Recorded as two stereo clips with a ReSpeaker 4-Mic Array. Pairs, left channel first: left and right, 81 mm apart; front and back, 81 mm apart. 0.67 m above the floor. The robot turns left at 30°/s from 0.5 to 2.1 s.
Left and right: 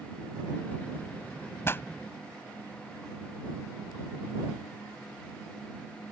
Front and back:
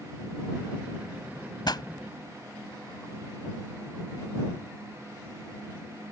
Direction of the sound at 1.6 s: 30° left.